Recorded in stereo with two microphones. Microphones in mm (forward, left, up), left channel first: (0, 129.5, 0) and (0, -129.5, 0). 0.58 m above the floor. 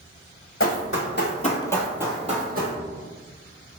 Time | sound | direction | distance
0.6 | running footsteps | 60° left (ahead or behind) | 1.1 m